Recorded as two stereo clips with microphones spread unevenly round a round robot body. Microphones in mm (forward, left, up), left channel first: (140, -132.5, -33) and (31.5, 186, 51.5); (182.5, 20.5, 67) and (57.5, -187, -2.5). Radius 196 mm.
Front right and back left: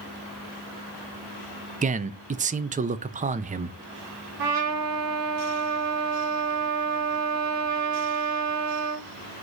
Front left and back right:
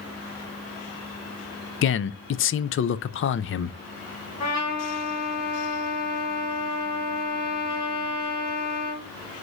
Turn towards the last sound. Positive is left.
turn(degrees=100)